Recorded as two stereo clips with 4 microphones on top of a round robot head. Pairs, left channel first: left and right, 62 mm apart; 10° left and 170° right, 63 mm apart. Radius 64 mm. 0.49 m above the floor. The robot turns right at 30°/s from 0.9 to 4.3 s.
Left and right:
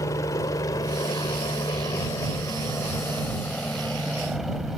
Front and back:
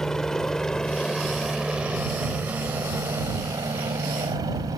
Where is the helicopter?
90° left; by 4.8 s 175° right.